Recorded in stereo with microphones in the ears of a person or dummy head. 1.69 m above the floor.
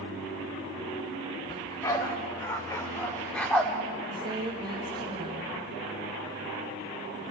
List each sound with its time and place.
1.5 s a dog barking: 25° left (ahead or behind), 2.5 m; by 3.7 s 5° left (ahead or behind), 1.4 m
4.1 s a woman speaking: 20° right (ahead or behind), 1.6 m